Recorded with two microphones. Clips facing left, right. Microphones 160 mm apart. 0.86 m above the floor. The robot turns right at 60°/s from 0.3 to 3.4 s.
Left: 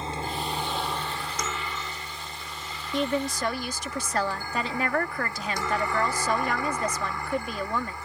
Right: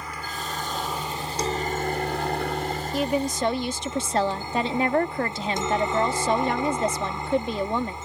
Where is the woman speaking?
Centre (ahead or behind); by 8.0 s 25° right (ahead or behind).